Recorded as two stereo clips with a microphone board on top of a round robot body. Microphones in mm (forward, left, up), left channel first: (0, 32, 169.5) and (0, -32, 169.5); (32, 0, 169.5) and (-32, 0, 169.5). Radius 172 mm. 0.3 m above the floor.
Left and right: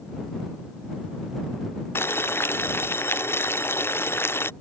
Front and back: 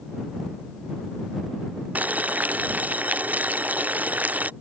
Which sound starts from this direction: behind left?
Boiling, at 1.9 s.